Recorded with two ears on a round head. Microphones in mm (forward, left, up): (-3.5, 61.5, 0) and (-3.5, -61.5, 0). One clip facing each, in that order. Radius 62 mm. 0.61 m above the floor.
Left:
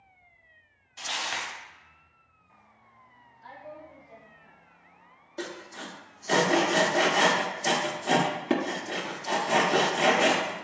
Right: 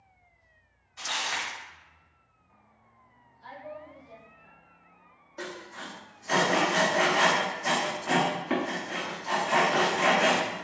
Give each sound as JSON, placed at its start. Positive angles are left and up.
{"t": 1.0, "sound": "crumpling", "side_deg": 30, "distance_m": 1.3}
{"t": 3.4, "sound": "a woman speaking", "side_deg": -70, "distance_m": 2.0}
{"t": 5.4, "sound": "sawing", "side_deg": 35, "distance_m": 0.6}